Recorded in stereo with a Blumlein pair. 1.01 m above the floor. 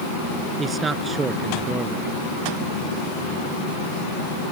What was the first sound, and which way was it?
A man speaking, 15° right.